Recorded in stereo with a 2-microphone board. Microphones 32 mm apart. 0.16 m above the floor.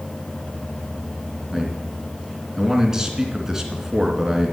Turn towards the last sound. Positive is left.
turn(degrees=-15)  # may be behind; listen again after turning